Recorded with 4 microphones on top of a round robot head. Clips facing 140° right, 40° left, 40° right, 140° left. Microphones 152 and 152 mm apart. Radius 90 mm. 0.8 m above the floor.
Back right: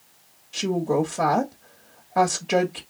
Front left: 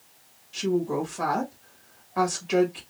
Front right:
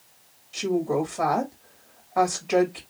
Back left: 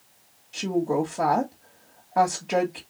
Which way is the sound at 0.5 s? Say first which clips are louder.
Back right 3 dB, even; 155° right.